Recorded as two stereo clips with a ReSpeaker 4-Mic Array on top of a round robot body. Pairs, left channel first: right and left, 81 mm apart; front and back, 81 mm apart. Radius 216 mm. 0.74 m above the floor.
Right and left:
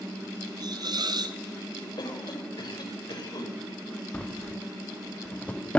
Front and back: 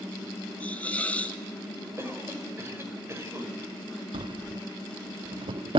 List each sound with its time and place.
0.6 s a hiss: 75° left, 1.8 m
2.0 s a cough: 120° right, 5 m
4.1 s a drawer: 165° right, 0.6 m